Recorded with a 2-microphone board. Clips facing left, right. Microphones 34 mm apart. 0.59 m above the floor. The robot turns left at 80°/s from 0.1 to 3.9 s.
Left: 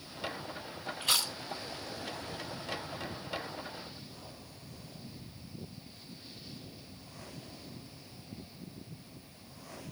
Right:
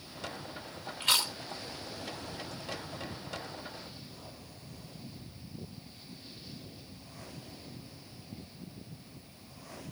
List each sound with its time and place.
1.0 s chewing: 60° right (ahead or behind), 2.5 m; by 1.3 s 40° right (ahead or behind), 2.5 m